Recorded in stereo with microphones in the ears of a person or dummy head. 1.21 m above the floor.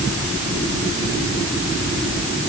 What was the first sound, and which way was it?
Only background noise.